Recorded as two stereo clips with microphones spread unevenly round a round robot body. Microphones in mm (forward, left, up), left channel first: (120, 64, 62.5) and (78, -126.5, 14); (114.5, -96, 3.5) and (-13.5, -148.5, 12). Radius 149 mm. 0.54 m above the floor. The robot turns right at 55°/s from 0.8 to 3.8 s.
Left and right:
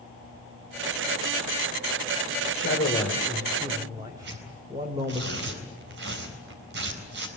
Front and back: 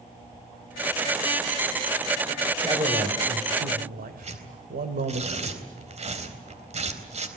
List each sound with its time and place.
2.5 s a man speaking: 120° left, 2.5 m; by 5.2 s 170° right, 2.5 m
4.2 s tearing paper: 120° right, 3.5 m